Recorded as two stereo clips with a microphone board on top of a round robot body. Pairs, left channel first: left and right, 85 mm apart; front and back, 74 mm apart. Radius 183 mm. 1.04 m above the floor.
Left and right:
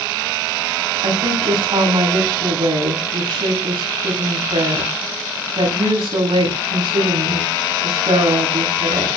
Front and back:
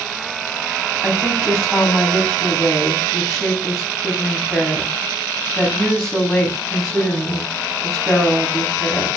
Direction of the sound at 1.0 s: 85° right.